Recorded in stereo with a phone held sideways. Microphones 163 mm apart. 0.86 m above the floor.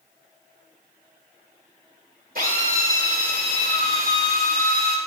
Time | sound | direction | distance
2.4 | a drill | 65° right (ahead or behind) | 2.5 m